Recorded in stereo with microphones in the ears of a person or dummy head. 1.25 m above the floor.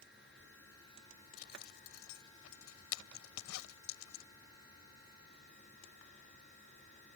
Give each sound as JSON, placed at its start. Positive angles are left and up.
{"t": 1.4, "sound": "a zipper", "side_deg": 85}